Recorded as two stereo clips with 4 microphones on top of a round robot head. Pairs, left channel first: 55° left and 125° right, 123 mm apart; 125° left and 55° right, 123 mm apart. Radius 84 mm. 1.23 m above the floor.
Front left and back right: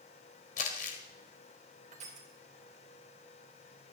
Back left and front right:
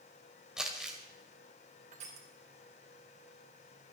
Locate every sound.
0.6 s crumpling: 30° left, 1.8 m
1.9 s crushing: 90° right, 3.5 m